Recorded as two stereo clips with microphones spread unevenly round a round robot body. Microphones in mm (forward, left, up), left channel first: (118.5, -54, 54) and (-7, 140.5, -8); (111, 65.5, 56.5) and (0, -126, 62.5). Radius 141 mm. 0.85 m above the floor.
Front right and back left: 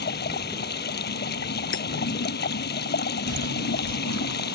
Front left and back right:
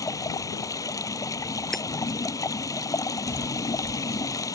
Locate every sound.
0.0 s running water: 15° right
1.7 s hammering: 30° right
3.3 s footsteps: 110° left; by 4.5 s 135° left